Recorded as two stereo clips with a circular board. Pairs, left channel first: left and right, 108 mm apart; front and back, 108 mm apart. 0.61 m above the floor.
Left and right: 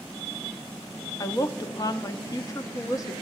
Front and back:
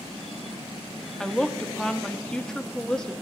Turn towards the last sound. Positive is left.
turn(degrees=80)